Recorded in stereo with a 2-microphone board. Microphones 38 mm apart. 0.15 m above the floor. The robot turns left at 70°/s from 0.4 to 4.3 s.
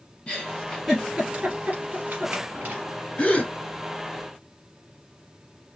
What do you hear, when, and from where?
0.3 s a giggle: 30° left (ahead or behind), 2.5 m; by 2.8 s 40° right (ahead or behind), 2.5 m
3.2 s a gasp: 25° left (ahead or behind), 1.8 m; by 3.5 s 40° left (ahead or behind), 1.8 m